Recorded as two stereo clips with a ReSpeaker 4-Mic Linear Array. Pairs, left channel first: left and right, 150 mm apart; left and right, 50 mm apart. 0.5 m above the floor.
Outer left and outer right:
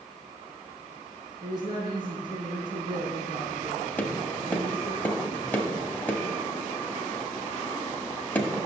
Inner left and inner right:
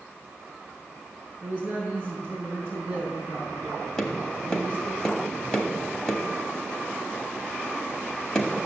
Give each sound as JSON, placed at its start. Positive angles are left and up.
{"t": 1.4, "sound": "a woman speaking", "side_deg": -25, "distance_m": 6.0}
{"t": 4.0, "sound": "tapping", "side_deg": 10, "distance_m": 1.6}